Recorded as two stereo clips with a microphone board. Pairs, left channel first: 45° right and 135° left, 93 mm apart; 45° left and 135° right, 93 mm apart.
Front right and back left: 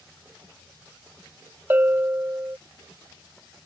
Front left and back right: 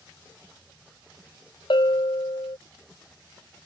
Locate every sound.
1.7 s a bell: 70° left